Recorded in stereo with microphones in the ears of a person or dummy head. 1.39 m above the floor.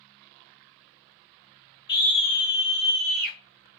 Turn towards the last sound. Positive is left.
turn(degrees=-55)  # may be behind; listen again after turning